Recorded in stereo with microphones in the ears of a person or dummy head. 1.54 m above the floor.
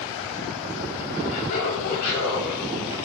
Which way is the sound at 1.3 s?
60° left (ahead or behind).